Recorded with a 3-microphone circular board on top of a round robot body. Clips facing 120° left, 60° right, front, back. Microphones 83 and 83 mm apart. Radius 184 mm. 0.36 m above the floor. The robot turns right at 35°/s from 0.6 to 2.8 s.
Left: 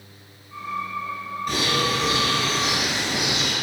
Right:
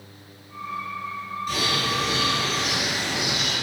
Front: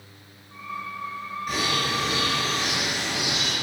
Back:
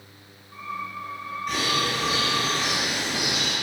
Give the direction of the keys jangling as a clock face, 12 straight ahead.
I don't hear keys jangling.